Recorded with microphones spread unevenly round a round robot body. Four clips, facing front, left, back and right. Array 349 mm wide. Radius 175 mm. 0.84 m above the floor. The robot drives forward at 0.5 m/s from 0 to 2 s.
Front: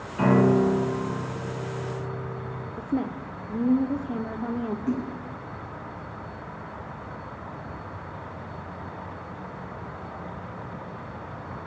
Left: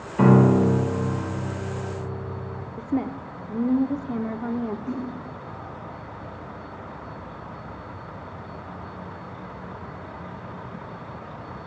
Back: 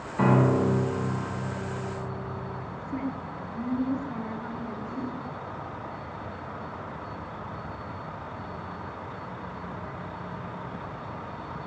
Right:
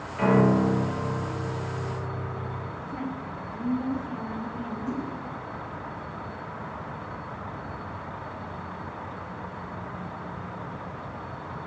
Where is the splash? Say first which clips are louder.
Left 1 dB, front 6 dB; 10° left, 9 m.